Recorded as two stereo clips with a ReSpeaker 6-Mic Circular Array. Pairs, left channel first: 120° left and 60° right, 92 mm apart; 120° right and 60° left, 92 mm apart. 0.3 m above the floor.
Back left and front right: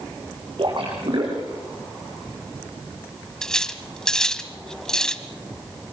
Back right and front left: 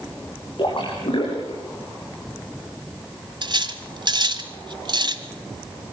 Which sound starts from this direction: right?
A splash, at 0.6 s.